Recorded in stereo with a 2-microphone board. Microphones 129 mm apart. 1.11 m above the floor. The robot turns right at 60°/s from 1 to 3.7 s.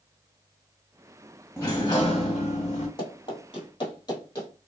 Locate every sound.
1.6 s a sliding door: 20° left, 1.4 m; by 2.9 s 100° left, 1.4 m
3.0 s running footsteps: 30° left (ahead or behind), 1.5 m; by 4.5 s 25° left (ahead or behind), 1.3 m